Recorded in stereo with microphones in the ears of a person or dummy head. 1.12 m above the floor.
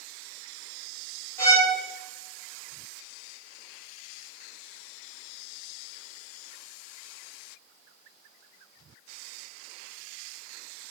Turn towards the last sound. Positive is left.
turn(degrees=5)  # may be behind; listen again after turning